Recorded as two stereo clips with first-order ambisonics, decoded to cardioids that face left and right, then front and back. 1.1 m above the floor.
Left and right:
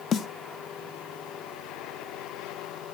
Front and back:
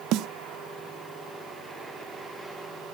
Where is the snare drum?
150° left, 0.5 m.